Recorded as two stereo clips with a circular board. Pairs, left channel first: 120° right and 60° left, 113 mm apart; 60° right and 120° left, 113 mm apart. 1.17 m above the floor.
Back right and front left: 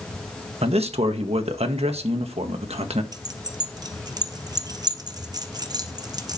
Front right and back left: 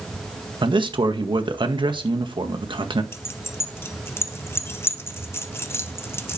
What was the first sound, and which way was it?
A man speaking, 80° left.